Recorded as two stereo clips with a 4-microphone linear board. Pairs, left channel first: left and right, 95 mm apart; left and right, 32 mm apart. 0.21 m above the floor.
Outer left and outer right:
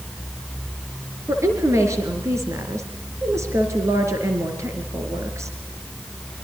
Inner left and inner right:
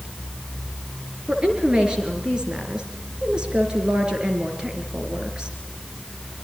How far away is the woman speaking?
About 3.5 m.